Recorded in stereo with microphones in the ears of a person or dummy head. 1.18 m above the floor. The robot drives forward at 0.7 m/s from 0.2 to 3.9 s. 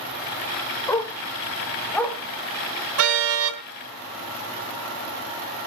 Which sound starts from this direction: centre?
A dog barking, at 0.9 s.